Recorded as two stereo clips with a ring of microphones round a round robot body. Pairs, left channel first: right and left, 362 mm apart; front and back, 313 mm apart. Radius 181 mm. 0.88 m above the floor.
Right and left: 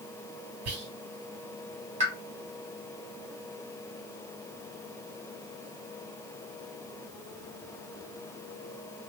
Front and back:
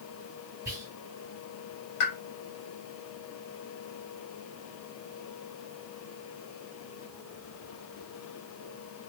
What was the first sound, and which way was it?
Whispering, 100° left.